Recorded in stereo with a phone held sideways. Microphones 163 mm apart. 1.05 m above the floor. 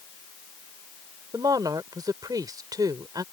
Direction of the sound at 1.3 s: 25° right (ahead or behind).